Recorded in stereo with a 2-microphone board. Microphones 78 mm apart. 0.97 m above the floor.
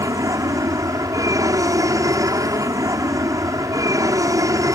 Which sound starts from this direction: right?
An aircraft, at 0.0 s.